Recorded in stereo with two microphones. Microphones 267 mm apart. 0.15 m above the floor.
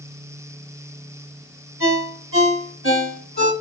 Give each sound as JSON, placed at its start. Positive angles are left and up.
{"t": 1.8, "sound": "a ringtone", "side_deg": -50, "distance_m": 1.6}